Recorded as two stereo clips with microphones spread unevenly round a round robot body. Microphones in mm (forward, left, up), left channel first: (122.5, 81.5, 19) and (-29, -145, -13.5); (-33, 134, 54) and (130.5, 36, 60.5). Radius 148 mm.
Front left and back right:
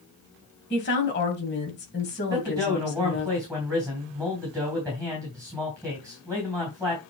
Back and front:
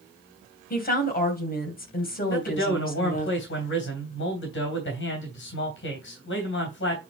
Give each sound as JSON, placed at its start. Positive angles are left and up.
{"t": 0.7, "sound": "a woman speaking", "azimuth_deg": 115, "distance_m": 3.0}
{"t": 2.3, "sound": "a man speaking", "azimuth_deg": 145, "distance_m": 3.0}